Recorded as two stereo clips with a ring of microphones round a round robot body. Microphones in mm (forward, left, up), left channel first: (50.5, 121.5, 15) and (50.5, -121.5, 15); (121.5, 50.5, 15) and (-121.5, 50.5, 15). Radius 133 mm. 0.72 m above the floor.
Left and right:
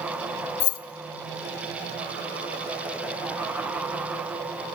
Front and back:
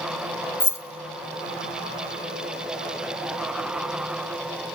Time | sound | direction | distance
0.6 | keys jangling | 80° left | 0.5 m